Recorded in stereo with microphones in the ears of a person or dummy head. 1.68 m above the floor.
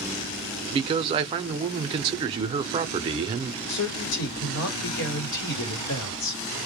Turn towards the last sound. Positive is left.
turn(degrees=70)  # may be behind; listen again after turning